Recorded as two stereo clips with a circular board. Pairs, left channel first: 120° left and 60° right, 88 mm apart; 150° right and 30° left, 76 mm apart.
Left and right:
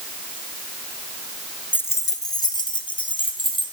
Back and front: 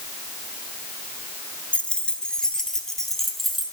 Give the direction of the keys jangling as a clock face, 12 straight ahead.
7 o'clock.